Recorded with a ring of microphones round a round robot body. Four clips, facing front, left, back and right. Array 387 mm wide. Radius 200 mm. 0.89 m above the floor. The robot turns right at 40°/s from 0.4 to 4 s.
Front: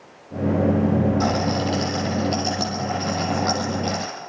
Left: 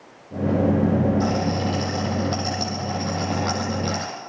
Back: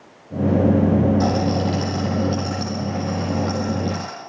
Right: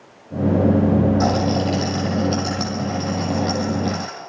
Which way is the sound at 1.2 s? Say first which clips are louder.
Right 4 dB, back 2 dB; 75° right.